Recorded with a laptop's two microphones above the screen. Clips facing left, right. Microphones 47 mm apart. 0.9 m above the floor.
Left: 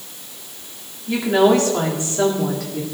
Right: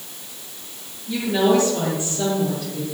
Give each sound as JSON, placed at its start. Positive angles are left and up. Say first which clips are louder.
{"t": 1.1, "sound": "a woman speaking", "louder": "left 3 dB", "side_deg": 70, "distance_m": 2.5}